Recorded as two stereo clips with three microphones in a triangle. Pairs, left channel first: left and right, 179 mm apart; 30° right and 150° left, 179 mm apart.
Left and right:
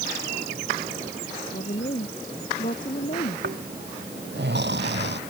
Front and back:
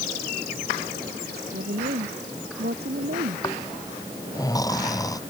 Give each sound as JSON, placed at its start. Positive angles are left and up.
{"t": 1.2, "sound": "a woman speaking", "azimuth_deg": 130}
{"t": 3.4, "sound": "snoring", "azimuth_deg": -100}